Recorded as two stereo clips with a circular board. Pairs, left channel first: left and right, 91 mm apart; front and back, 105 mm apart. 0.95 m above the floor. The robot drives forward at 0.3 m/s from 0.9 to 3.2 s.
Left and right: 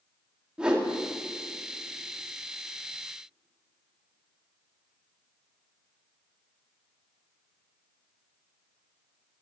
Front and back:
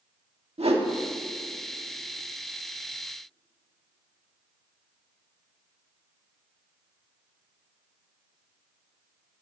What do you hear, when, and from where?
0.6 s a whoosh: 170° right, 1.9 m